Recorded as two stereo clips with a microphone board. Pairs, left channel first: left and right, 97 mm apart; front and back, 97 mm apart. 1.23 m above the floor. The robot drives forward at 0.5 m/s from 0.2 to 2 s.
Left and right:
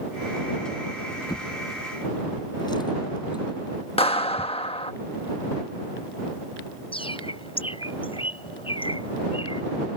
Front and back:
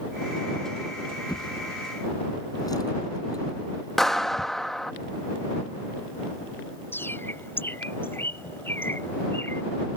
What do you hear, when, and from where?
1.3 s a drawer: 45° left; by 4.5 s 50° left
4.0 s a clap: 85° left
6.9 s a bird: 70° left